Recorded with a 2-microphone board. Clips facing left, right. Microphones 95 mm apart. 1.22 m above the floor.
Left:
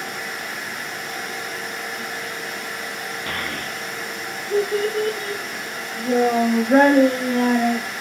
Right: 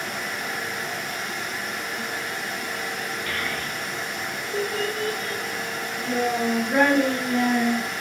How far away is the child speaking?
About 0.9 m.